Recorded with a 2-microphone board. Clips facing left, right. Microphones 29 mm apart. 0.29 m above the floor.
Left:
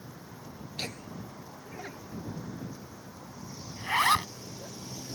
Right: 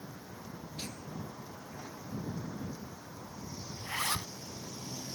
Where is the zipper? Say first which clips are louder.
Left 11 dB; 50° left (ahead or behind).